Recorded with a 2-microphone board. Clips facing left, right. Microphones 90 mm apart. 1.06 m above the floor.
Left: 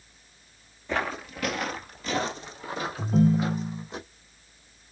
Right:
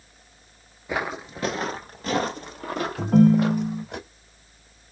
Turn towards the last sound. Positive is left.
turn(degrees=-70)  # may be behind; listen again after turning